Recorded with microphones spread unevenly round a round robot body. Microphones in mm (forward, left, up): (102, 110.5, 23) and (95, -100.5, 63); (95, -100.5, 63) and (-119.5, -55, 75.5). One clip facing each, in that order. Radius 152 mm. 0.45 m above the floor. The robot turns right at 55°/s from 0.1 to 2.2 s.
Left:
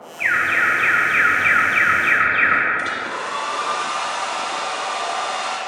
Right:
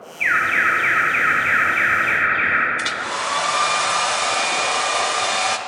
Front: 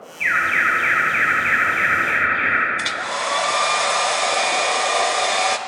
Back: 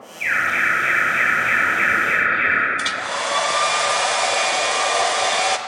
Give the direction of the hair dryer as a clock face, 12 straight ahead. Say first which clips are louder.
Even, even; 3 o'clock.